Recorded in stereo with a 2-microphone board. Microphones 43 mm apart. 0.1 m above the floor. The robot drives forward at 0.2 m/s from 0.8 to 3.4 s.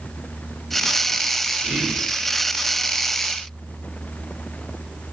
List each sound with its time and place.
1.6 s whispering: 5° right (ahead or behind), 1.2 m